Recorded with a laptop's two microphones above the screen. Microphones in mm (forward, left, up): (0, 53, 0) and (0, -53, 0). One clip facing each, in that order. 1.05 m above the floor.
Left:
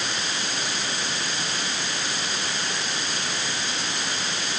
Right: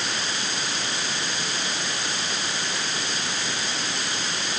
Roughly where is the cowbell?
No cowbell in this recording.